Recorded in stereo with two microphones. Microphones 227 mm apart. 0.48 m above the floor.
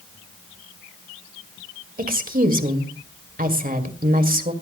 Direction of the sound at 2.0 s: 40° right (ahead or behind).